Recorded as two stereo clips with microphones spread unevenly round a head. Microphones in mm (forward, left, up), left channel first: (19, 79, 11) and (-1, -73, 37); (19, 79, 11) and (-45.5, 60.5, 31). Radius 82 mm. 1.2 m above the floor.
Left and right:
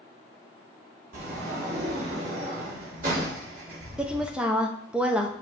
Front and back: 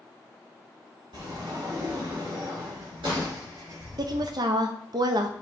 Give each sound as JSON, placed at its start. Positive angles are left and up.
{"t": 1.1, "sound": "a sliding door", "azimuth_deg": -140, "distance_m": 4.5}
{"t": 4.0, "sound": "a woman speaking", "azimuth_deg": 180, "distance_m": 1.0}